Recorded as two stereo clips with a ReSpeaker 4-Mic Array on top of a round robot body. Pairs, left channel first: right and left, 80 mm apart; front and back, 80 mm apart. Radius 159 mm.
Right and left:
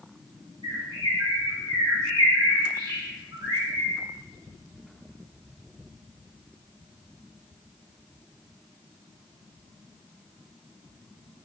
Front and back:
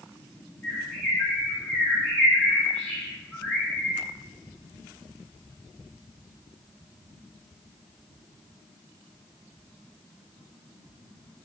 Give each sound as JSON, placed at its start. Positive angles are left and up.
{"t": 0.6, "sound": "a bird", "azimuth_deg": 70, "distance_m": 1.7}